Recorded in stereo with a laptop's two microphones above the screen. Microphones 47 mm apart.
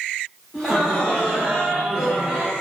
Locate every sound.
0.5 s laughter: 10° left (ahead or behind), 1.0 m; by 2.5 s 5° left (ahead or behind), 1.3 m